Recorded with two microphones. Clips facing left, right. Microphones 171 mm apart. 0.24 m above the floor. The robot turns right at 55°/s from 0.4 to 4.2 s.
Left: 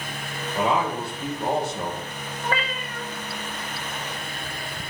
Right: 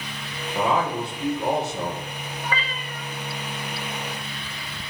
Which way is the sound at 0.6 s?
155° right.